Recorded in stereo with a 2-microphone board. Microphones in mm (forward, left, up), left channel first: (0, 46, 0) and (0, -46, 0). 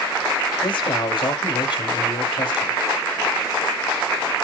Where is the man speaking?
65° left (ahead or behind), 5.5 m.